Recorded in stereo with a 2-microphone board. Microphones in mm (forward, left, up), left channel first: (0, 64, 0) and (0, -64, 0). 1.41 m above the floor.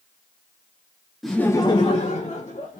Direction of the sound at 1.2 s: Centre (ahead or behind).